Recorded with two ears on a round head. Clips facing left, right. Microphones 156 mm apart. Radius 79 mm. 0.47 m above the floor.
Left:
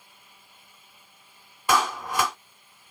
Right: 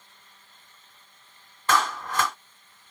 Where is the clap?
10° left (ahead or behind), 0.8 m.